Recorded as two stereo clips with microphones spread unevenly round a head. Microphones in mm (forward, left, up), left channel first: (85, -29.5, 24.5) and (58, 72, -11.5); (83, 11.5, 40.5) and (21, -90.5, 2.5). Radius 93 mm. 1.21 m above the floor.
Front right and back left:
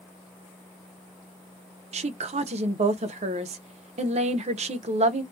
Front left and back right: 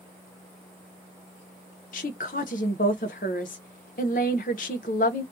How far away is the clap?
I don't hear a clap.